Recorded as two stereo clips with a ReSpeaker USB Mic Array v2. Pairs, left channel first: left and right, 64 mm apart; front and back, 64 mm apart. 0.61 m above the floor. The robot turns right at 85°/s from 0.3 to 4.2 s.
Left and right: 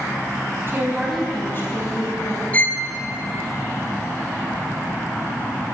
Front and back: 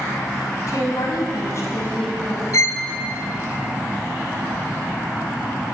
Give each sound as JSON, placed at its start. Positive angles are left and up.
{"t": 0.7, "sound": "a woman speaking", "azimuth_deg": -40, "distance_m": 4.0}
{"t": 2.5, "sound": "a violin", "azimuth_deg": 25, "distance_m": 0.7}